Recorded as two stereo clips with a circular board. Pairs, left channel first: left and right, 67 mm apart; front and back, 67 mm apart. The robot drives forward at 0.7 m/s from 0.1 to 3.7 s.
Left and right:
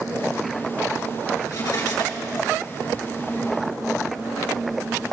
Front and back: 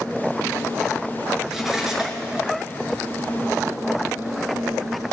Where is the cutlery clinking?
95° left, 3.5 m; by 2.4 s 105° left, 3.5 m.